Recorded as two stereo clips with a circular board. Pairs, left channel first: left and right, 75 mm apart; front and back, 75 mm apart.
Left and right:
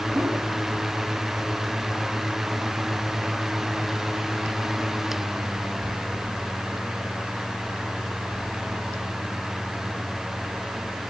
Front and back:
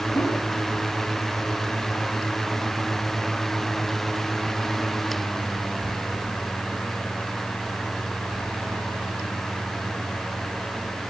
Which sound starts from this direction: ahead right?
A whoosh, at 0.1 s.